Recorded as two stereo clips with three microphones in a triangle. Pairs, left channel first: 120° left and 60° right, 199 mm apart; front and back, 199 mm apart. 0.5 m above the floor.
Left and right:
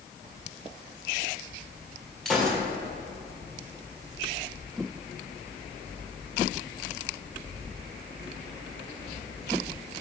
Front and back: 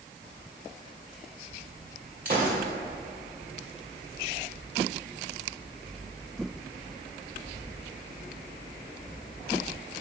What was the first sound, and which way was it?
A gunshot, 150° right.